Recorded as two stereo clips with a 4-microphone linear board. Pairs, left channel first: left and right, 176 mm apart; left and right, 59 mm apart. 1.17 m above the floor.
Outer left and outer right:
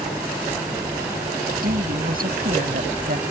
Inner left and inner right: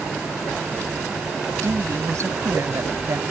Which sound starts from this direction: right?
A woman speaking, at 1.6 s.